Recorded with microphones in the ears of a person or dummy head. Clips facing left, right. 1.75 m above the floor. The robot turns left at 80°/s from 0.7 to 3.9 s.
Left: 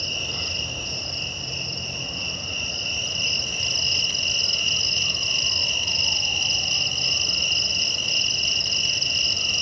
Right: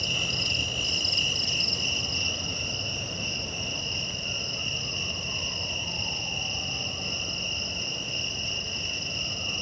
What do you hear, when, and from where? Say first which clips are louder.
0.0 s an insect: even; 35° right, 0.8 m; by 9.6 s 70° left, 0.8 m